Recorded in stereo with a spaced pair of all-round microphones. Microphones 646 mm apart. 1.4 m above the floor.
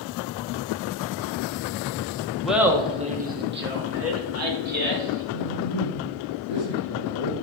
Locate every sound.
2.4 s laughter: centre (ahead or behind), 1.0 m; by 5.2 s 30° right (ahead or behind), 2.5 m
5.3 s a man speaking: 80° left, 1.5 m